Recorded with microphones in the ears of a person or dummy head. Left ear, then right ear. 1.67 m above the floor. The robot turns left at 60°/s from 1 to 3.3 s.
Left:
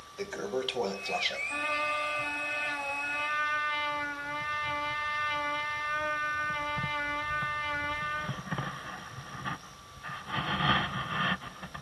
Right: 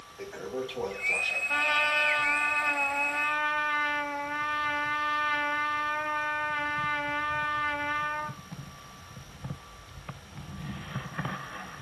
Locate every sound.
0.2 s a toilet flushing: 65° left (ahead or behind), 0.7 m; by 1.4 s 40° left (ahead or behind), 0.7 m
1.5 s a trumpet: 70° right, 0.6 m; by 8.4 s straight behind, 0.6 m